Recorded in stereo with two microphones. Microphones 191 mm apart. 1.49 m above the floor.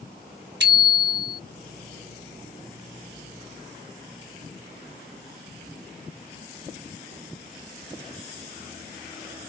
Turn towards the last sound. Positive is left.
turn(degrees=-85)